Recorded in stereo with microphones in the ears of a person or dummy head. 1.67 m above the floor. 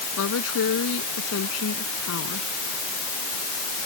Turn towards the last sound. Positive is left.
turn(degrees=80)